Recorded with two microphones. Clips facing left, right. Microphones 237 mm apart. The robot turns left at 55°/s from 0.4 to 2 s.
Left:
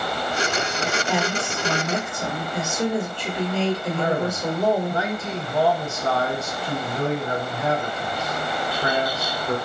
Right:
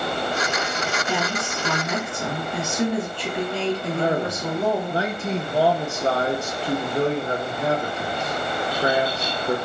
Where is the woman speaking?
40° right, 1.7 m; by 4.9 s 90° right, 1.7 m.